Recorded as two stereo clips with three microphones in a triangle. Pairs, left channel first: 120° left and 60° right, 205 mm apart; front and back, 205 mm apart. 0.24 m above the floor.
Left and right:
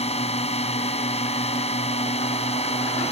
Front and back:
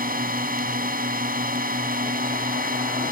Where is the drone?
165° left.